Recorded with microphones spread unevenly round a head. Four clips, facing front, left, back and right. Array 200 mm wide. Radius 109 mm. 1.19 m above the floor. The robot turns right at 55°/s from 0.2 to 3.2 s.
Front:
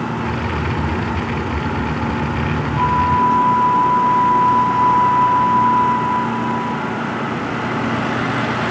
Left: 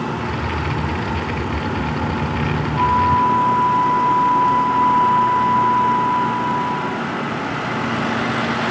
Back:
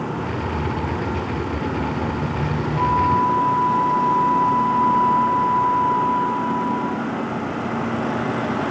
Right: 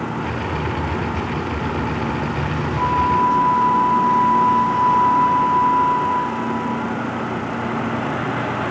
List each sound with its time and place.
2.8 s a flute: 50° left, 6 m; by 7.1 s 75° left, 6 m